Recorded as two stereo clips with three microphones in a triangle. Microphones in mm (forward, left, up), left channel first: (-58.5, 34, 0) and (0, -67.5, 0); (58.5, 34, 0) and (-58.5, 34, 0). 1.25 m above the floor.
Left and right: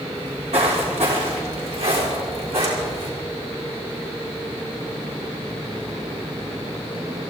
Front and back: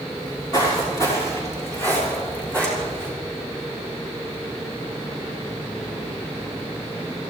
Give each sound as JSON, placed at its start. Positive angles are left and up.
{"t": 0.2, "sound": "footsteps", "azimuth_deg": -50, "distance_m": 6.5}